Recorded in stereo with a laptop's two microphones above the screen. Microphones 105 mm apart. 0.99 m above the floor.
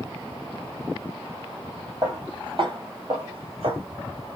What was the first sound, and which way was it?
Footsteps, 40° right (ahead or behind).